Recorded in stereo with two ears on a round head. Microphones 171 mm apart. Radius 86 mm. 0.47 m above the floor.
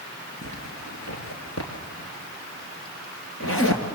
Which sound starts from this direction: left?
A zipper, at 0.4 s.